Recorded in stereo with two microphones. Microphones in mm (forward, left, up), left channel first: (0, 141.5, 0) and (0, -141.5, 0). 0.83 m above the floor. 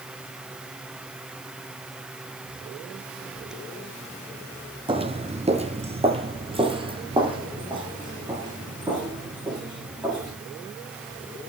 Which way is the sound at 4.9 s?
15° right (ahead or behind).